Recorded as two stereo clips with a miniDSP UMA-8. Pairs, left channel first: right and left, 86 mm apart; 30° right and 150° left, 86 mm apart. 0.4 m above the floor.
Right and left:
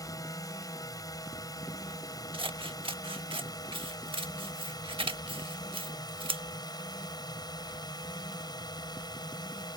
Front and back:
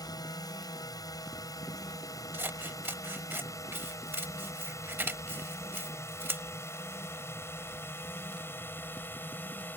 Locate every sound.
0.0 s a drone: 55° right; by 9.8 s 90° right
2.3 s scissors: 85° left